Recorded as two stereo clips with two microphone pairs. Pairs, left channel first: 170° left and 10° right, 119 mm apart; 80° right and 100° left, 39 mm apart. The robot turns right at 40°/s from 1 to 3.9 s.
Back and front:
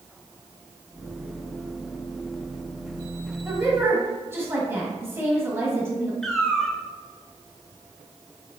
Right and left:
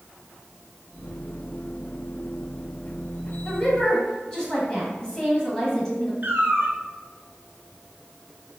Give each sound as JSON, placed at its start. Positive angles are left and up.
{"t": 3.5, "sound": "a woman speaking", "azimuth_deg": -60, "distance_m": 1.3}
{"t": 6.2, "sound": "a cat meowing", "azimuth_deg": 85, "distance_m": 0.8}